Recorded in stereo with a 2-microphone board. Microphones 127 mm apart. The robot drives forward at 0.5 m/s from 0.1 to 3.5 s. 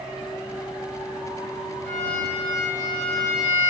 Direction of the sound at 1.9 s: 60° right (ahead or behind).